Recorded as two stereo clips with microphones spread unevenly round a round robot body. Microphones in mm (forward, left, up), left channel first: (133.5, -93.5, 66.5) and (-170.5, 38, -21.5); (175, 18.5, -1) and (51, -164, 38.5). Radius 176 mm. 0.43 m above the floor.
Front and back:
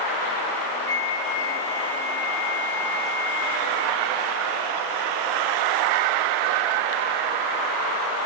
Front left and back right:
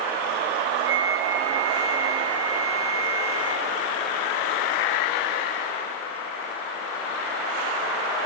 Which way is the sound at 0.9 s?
105° right.